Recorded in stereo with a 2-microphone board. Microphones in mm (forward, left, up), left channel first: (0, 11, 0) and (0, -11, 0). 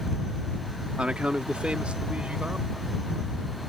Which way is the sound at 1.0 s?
60° right (ahead or behind).